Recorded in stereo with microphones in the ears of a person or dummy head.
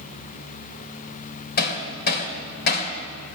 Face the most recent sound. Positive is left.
turn(degrees=50)  # may be behind; listen again after turning